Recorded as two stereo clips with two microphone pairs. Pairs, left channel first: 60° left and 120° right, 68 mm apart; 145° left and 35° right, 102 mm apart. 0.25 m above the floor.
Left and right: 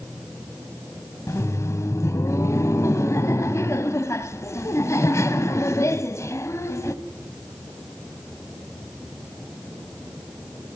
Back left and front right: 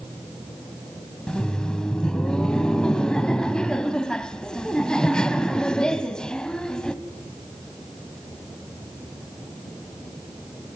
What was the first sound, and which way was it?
Laughter, 70° left.